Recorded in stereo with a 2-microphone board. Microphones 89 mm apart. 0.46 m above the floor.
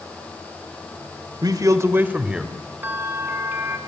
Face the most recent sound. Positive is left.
turn(degrees=-25)  # may be behind; listen again after turning